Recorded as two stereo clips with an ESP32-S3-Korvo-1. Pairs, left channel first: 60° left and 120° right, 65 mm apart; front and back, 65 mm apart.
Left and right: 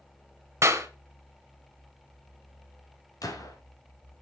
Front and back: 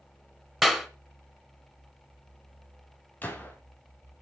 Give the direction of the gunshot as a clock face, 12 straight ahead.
10 o'clock.